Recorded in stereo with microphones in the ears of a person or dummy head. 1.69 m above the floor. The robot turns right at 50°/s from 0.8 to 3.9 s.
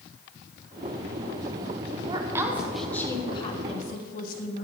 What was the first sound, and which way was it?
A woman speaking, 40° right.